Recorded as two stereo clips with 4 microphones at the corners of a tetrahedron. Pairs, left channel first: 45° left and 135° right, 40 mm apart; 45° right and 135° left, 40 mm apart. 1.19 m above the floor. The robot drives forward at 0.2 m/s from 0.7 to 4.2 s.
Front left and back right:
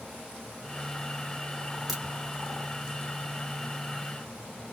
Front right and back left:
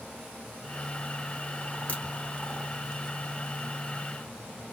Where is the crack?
50° right, 1.0 m.